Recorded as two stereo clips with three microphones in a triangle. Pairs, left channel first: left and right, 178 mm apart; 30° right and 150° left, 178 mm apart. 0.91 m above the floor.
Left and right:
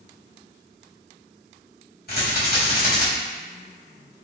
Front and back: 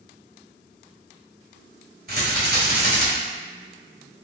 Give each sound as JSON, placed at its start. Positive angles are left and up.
{"t": 2.1, "sound": "a rattle", "azimuth_deg": 120, "distance_m": 1.5}